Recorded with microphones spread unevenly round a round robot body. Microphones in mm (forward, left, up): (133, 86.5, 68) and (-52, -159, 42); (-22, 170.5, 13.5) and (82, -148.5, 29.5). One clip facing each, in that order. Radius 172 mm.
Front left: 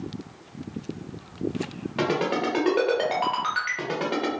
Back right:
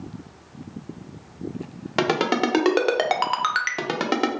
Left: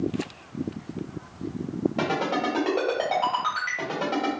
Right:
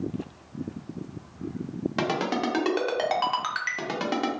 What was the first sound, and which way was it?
A ringtone, 125° right.